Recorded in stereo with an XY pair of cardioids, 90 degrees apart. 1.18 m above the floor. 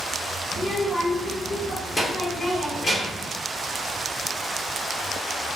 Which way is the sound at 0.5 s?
45° left.